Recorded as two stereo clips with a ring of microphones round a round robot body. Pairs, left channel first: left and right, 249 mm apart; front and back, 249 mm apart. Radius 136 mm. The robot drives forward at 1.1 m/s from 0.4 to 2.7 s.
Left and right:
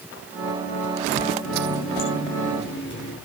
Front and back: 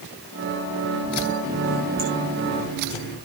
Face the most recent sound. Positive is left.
turn(degrees=130)